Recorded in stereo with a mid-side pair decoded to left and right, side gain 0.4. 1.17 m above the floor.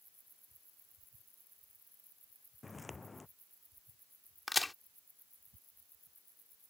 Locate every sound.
2.6 s footsteps: 30° left
4.5 s a crack: 20° left